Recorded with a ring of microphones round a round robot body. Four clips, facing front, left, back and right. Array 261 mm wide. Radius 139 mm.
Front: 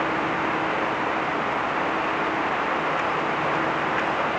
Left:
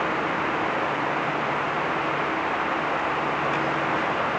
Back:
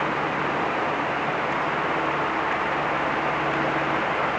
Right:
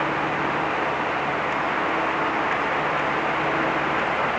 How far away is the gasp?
No gasp in this recording.